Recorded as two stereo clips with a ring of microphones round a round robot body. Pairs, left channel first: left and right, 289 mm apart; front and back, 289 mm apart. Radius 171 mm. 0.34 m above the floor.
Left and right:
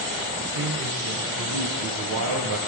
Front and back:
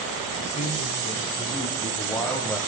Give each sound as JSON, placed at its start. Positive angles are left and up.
{"t": 0.4, "sound": "a man speaking", "azimuth_deg": -65, "distance_m": 4.5}